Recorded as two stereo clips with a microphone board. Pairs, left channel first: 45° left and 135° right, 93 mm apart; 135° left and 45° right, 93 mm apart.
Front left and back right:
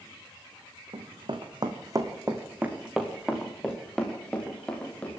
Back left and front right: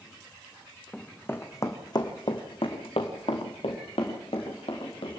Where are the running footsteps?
145° right, 2.5 m; by 5.2 s 120° left, 5.5 m.